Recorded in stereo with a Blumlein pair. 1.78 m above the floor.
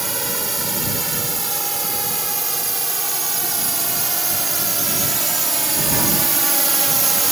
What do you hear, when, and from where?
0.0 s a drone: 5° right; by 7.3 s 10° right